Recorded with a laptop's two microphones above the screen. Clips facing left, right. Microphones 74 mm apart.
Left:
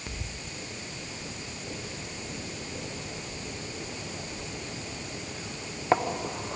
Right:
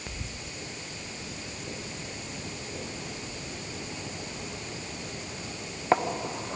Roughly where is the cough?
I don't hear a cough.